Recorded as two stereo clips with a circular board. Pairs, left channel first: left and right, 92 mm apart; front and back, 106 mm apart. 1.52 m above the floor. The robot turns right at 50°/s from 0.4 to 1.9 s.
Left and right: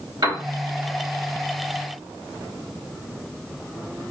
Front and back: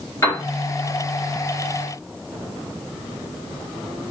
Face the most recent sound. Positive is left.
turn(degrees=15)